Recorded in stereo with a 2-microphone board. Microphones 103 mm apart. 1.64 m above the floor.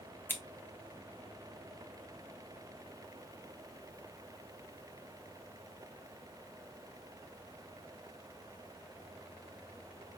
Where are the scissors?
20° left (ahead or behind), 1.0 m.